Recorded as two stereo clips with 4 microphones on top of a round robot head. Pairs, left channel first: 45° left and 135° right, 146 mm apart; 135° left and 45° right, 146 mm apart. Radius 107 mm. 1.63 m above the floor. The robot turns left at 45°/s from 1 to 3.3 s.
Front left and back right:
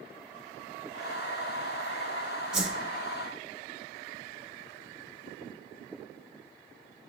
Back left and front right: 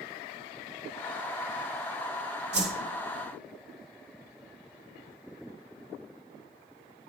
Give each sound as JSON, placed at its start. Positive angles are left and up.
{"t": 2.5, "sound": "a whoosh", "azimuth_deg": -50, "distance_m": 0.8}